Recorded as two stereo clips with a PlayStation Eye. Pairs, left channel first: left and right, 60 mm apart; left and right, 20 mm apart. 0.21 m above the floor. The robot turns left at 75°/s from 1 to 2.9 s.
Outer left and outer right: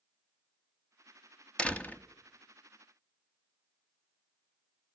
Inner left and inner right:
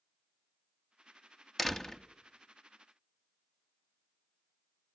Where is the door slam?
150° left, 0.9 m; by 2.0 s 115° left, 0.9 m.